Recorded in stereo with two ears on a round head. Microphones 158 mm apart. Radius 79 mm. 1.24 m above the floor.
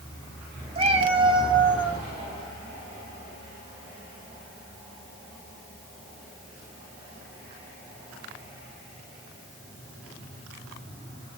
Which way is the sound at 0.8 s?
35° right (ahead or behind).